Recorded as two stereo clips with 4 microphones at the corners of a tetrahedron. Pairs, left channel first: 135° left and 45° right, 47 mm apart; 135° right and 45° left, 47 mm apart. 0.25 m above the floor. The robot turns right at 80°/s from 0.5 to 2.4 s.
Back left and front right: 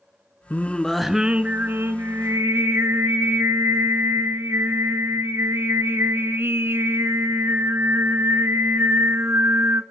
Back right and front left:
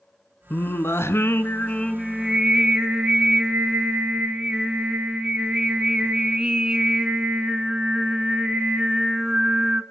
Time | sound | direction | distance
0.5 | singing | 175° right | 0.8 m